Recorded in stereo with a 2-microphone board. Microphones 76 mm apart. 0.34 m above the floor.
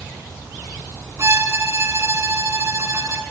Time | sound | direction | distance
1.2 | a violin | 40° right (ahead or behind) | 2 m